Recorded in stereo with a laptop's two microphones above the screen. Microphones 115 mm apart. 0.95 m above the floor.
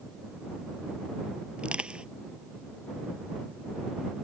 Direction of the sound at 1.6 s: 10° right (ahead or behind).